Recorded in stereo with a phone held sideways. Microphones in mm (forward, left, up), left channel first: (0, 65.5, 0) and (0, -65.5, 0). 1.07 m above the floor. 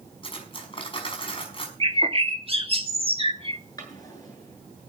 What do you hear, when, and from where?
0.2 s cutlery clinking: 40° left (ahead or behind), 5.5 m
1.8 s a bird: 45° right (ahead or behind), 1.8 m
3.8 s a drawer: 30° left (ahead or behind), 8.5 m